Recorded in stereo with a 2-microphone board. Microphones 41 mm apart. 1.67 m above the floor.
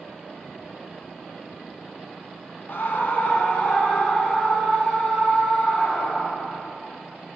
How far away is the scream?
About 0.8 m.